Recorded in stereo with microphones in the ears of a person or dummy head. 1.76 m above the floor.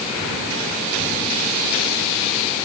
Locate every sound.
Only background noise.